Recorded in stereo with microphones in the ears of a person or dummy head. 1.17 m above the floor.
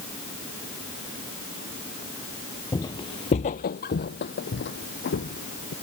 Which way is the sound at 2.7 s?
15° left (ahead or behind).